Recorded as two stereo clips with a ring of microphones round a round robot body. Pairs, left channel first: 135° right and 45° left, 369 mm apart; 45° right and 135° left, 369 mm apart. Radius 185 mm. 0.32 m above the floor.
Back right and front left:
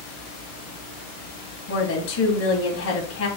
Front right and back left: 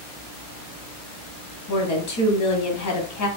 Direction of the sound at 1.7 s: 85° right.